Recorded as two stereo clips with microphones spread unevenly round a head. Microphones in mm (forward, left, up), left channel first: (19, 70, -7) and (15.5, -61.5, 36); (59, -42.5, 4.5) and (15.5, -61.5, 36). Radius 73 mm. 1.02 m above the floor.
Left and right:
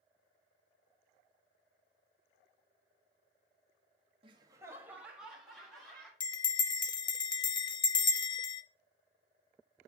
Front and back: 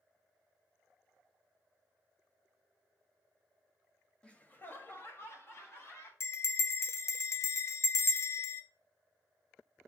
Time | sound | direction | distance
4.2 | laughter | 35° right | 0.9 m
6.2 | a bell | 35° left | 0.6 m